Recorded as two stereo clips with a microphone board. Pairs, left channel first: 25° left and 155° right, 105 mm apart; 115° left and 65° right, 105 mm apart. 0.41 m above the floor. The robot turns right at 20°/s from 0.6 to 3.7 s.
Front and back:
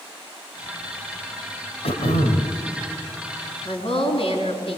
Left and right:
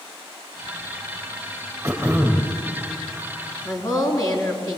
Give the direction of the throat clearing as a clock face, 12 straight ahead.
12 o'clock.